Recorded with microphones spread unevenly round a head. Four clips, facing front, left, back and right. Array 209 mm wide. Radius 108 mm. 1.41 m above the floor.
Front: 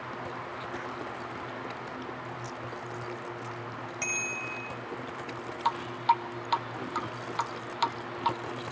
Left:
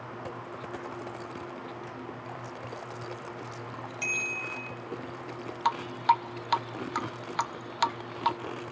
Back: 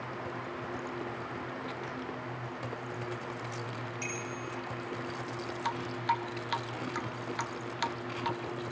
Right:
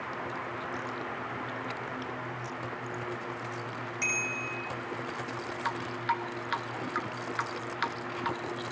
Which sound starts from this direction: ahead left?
Dripping, at 5.7 s.